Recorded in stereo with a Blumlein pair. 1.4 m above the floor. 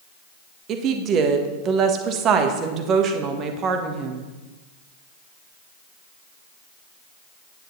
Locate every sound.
0.7 s a woman speaking: 30° right, 1.4 m